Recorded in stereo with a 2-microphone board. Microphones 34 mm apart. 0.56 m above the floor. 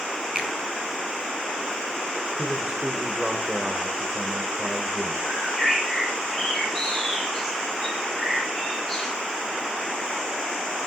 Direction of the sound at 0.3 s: 15° right (ahead or behind).